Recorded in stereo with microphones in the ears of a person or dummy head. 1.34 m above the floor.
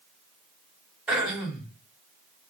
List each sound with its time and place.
1.1 s throat clearing: 5° right (ahead or behind), 4.5 m